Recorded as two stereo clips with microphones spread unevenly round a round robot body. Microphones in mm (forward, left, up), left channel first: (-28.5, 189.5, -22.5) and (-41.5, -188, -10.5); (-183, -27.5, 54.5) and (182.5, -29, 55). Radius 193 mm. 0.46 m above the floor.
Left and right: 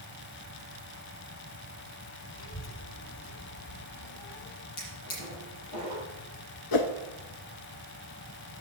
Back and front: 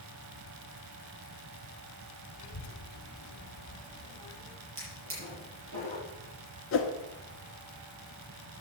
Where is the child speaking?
140° left, 2 m; by 4.6 s 95° left, 1.9 m.